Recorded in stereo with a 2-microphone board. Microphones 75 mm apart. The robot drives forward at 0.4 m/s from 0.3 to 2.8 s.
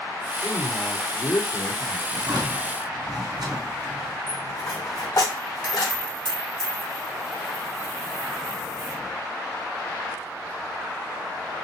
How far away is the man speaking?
About 3 m.